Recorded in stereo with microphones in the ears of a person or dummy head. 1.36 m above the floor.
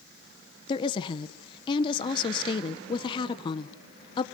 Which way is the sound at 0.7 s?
25° left (ahead or behind).